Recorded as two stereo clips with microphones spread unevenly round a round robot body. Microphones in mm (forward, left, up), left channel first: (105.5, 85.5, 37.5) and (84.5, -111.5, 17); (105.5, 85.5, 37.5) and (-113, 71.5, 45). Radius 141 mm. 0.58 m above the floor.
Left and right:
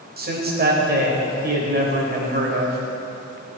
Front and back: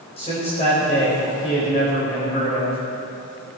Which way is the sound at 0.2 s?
60° right.